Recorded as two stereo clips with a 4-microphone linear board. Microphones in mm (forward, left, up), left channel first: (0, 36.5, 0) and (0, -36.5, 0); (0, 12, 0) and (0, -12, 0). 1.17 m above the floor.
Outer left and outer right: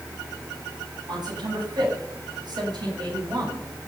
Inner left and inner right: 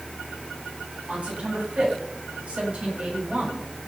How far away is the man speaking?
About 9 m.